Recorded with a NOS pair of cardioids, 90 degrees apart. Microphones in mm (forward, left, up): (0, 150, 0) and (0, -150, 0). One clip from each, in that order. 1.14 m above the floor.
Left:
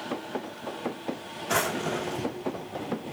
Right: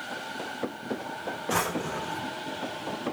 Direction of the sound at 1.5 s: 30° left.